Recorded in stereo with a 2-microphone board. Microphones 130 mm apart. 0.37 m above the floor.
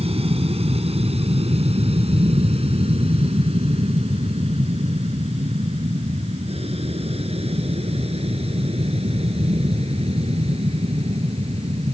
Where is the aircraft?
50° right (ahead or behind).